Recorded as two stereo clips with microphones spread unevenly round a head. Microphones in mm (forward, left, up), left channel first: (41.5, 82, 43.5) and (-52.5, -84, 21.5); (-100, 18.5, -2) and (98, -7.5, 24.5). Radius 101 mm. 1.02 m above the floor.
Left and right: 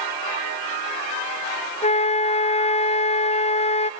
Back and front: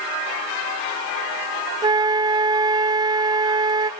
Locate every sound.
1.8 s a flute: 55° left, 0.7 m